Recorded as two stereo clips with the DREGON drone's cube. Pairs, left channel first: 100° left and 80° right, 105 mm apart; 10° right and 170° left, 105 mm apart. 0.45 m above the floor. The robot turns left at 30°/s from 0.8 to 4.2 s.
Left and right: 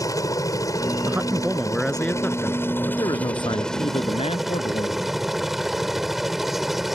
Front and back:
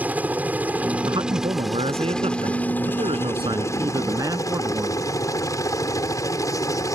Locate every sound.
0.0 s a helicopter: 110° left; by 7.0 s 5° left
1.1 s a man speaking: 150° right; by 5.1 s 115° left